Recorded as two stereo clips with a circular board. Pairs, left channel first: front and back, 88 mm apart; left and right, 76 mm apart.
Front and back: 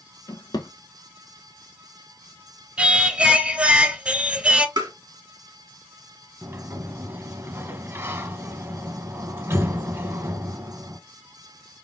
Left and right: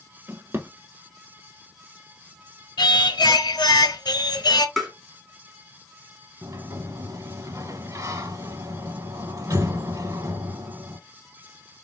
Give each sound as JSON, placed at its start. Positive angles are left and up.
{"t": 0.3, "sound": "a drawer", "azimuth_deg": -35, "distance_m": 0.7}
{"t": 2.8, "sound": "singing", "azimuth_deg": 105, "distance_m": 0.8}
{"t": 4.8, "sound": "tapping", "azimuth_deg": 180, "distance_m": 1.8}
{"t": 6.4, "sound": "a sliding door", "azimuth_deg": -125, "distance_m": 0.6}